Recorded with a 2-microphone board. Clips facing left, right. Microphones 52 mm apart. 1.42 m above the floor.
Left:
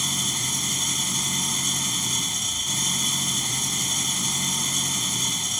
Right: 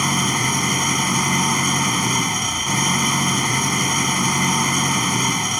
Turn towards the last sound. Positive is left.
turn(degrees=-55)  # may be behind; listen again after turning